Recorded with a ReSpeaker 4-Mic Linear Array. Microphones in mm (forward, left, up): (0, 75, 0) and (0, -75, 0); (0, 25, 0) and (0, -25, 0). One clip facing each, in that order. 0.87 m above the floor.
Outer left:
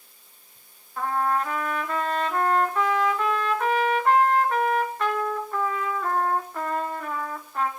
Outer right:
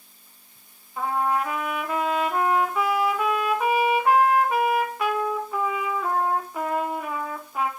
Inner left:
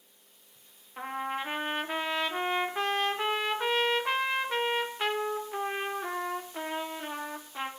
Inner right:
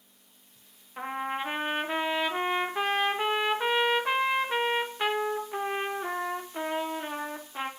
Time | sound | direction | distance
1.0 | a trumpet | 10° right (ahead or behind) | 2.5 m